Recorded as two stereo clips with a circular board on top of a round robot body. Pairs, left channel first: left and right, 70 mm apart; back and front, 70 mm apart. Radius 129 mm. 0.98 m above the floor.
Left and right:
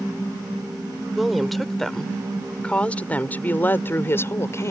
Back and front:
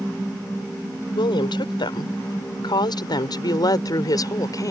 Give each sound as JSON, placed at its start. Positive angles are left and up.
{"t": 1.1, "sound": "a woman speaking", "azimuth_deg": 180}